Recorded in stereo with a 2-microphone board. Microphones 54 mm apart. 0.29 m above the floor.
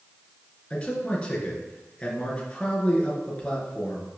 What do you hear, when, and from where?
0.7 s a man speaking: 20° left (ahead or behind), 3.5 m